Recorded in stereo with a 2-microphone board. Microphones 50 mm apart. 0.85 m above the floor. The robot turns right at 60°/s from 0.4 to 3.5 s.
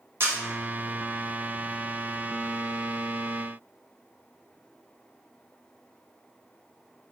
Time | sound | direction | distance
0.2 | a camera shutter | 45° right (ahead or behind) | 0.8 m